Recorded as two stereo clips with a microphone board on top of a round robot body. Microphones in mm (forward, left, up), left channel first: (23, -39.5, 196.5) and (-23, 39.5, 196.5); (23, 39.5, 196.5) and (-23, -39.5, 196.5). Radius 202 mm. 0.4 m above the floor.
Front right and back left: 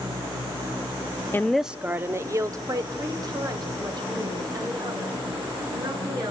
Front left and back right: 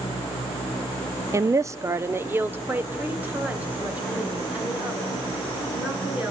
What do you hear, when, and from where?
1.3 s a woman speaking: 105° right, 0.8 m; by 6.3 s 165° left, 7 m